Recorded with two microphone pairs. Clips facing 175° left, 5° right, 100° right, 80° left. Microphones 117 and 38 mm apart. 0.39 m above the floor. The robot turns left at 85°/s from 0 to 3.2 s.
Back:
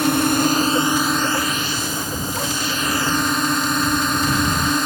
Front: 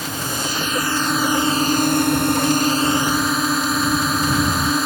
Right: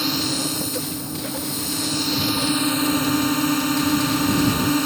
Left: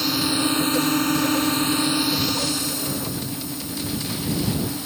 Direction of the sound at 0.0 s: Straight behind.